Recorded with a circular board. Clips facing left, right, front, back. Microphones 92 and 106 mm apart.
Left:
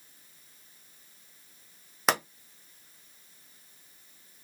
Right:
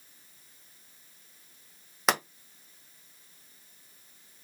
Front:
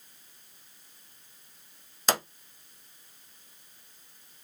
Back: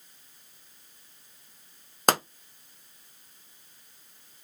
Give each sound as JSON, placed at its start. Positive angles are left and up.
{"t": 2.1, "sound": "a pop", "azimuth_deg": 180, "distance_m": 0.6}